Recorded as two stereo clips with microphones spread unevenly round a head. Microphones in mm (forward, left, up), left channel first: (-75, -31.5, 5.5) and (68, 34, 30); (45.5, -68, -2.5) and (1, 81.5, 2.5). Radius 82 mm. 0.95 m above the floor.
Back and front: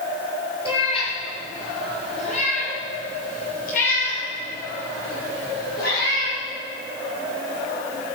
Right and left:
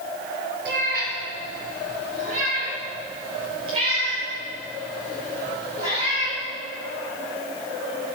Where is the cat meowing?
145° left, 6.5 m; by 6.4 s 175° left, 9 m.